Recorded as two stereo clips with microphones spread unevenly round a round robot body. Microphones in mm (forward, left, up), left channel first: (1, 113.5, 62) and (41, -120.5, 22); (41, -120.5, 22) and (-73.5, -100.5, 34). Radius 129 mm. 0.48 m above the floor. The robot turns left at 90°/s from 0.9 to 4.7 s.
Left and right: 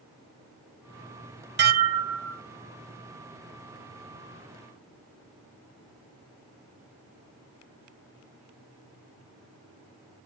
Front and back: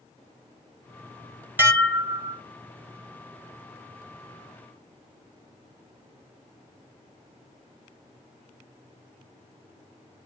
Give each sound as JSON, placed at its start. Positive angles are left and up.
{"t": 1.6, "sound": "dishes clattering", "azimuth_deg": -115, "distance_m": 1.2}